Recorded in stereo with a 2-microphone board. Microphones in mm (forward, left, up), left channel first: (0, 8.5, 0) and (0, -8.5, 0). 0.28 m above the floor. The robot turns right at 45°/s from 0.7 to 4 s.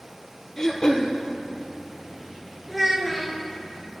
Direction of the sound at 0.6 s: 30° left (ahead or behind).